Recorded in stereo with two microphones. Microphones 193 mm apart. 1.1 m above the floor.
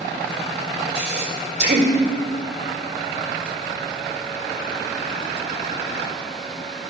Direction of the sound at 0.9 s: 55° right (ahead or behind).